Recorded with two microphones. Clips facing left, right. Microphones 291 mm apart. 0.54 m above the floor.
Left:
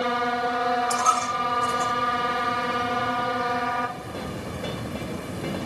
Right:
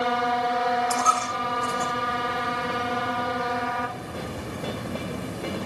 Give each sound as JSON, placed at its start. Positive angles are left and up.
{"t": 0.9, "sound": "a dropped coin", "side_deg": -30, "distance_m": 6.5}